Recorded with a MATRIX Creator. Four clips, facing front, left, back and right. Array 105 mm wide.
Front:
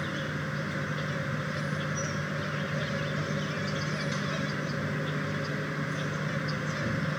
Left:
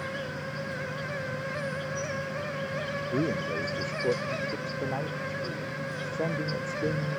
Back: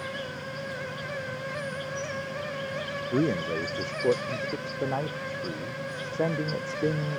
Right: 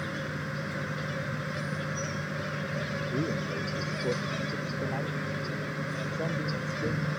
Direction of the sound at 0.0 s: 25° right.